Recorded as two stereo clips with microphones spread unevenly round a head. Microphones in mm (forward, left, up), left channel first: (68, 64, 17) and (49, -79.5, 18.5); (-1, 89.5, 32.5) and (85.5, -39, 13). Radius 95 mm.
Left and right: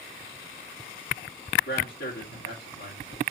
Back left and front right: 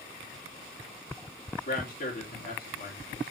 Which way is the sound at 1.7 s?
95° left.